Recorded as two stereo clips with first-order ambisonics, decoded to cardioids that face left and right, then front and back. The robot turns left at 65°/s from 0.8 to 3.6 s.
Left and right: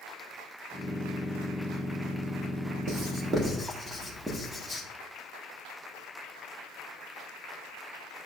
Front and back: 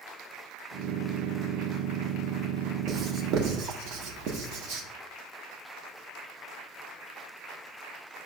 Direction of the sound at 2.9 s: 125° right.